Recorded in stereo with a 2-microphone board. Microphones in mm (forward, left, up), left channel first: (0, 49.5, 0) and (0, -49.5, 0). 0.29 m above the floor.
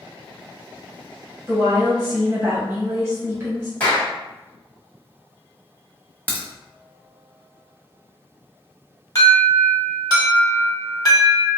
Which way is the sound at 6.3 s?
15° left (ahead or behind).